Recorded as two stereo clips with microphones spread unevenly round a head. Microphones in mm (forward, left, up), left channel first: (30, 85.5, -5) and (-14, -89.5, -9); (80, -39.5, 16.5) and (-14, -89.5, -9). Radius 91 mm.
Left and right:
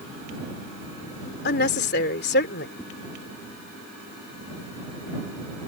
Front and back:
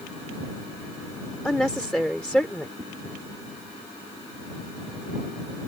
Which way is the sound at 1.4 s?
115° left.